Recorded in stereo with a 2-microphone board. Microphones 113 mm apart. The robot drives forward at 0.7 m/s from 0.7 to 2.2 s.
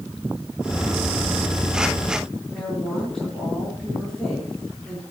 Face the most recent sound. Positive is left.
turn(degrees=5)  # may be behind; listen again after turning